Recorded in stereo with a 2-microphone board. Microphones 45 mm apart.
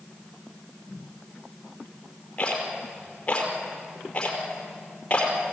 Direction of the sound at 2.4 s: 25° left (ahead or behind).